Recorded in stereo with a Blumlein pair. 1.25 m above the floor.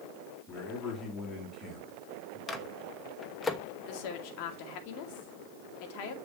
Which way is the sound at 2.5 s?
10° left.